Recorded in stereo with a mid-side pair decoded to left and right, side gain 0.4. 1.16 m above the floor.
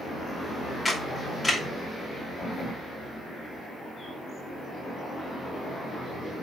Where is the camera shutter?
20° left, 3 m.